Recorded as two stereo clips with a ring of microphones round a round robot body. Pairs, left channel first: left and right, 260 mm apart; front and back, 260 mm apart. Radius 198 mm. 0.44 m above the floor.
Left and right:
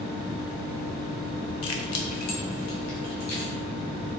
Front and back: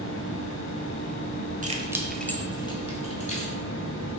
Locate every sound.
1.6 s keys jangling: 120° left, 1.2 m; by 3.5 s 60° left, 3 m